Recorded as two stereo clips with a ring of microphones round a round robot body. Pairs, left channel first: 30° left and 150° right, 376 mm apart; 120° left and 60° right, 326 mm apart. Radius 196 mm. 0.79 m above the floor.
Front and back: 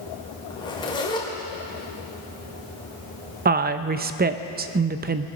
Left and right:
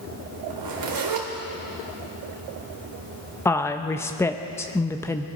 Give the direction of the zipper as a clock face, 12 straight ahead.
2 o'clock.